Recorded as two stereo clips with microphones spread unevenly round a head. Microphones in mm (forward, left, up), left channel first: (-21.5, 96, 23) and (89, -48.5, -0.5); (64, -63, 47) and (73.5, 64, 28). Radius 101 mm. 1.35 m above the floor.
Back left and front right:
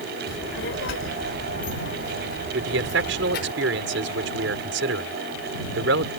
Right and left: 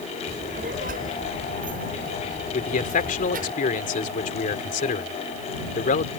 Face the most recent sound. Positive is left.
turn(degrees=-85)